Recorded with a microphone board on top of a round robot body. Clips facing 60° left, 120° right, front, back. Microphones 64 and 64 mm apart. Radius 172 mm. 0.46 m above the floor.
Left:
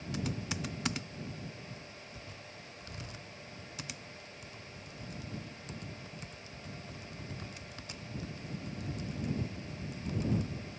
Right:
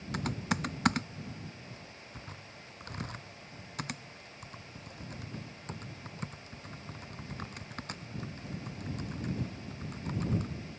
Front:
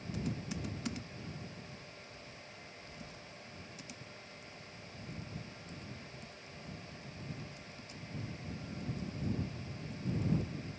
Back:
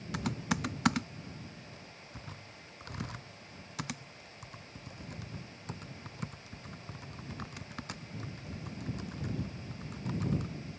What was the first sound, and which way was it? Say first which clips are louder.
Typing on a keyboard: right 5 dB, back 7 dB; 160° right.